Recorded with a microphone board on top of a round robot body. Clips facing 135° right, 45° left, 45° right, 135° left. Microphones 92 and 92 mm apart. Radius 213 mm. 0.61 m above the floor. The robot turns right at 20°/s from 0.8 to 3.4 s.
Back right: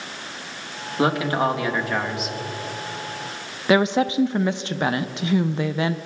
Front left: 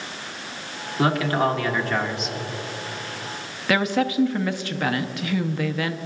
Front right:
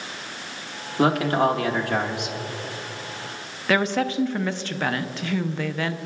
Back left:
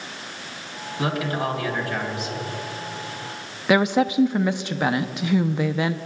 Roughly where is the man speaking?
Right.